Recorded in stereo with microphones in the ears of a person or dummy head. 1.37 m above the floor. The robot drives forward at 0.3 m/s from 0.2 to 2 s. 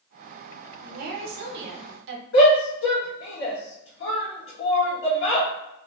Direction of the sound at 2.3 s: 75° left (ahead or behind).